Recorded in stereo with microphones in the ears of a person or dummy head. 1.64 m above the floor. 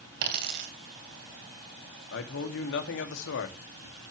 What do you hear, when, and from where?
0.2 s a dropped coin: 60° right (ahead or behind), 3 m
2.1 s a man speaking: 65° left (ahead or behind), 2.5 m